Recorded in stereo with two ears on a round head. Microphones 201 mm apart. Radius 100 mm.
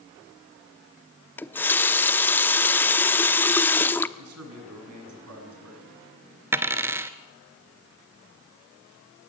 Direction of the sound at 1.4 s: 10° left (ahead or behind).